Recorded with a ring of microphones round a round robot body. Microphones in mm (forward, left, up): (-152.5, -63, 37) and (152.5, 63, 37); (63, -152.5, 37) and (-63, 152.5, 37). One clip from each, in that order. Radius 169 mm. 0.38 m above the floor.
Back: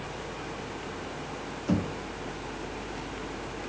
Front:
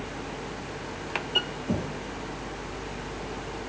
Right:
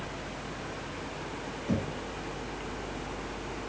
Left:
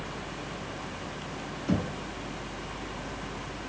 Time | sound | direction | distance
1.7 | knocking | 170° left | 2.5 m